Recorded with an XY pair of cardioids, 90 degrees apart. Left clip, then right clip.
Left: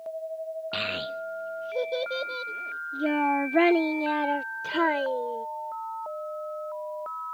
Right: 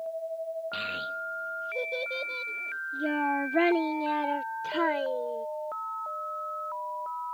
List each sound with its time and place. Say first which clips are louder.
0.7 s a child speaking: left 6 dB; 50° left; by 5.5 s 25° left